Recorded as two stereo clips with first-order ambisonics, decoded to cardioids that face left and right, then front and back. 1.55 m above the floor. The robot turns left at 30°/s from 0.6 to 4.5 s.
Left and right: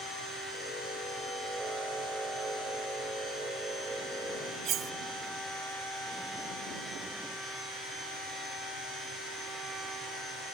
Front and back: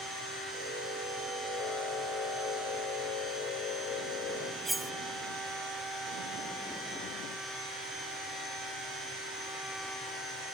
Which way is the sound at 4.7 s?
95° right.